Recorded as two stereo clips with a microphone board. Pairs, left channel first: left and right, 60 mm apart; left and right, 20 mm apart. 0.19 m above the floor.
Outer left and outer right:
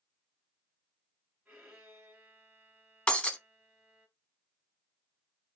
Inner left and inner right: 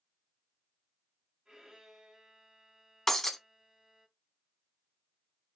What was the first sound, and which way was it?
A violin, 20° right (ahead or behind).